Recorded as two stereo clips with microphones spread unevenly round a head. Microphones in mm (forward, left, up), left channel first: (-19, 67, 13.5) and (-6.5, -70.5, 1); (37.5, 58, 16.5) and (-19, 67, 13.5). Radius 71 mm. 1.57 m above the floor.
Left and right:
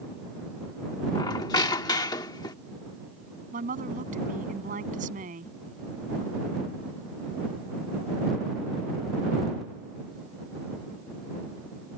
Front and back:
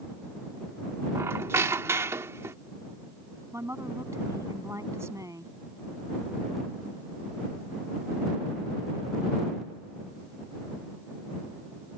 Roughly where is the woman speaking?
Behind right.